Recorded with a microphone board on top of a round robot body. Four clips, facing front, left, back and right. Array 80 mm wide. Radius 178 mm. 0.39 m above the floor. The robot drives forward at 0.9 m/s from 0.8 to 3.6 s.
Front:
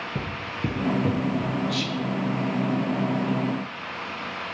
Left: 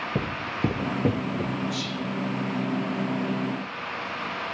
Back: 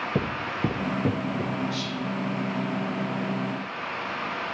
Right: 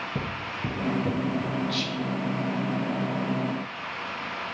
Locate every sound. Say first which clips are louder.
0.1 s footsteps: left 4 dB, back 4 dB; 155° left, 0.6 m; by 1.6 s 120° left, 0.7 m
1.7 s whispering: right 1 dB, front 3 dB; 25° right, 1.9 m; by 2.0 s 35° right, 1.7 m